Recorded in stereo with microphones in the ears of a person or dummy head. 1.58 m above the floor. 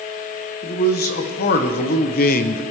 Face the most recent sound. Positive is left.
turn(degrees=45)  # may be behind; listen again after turning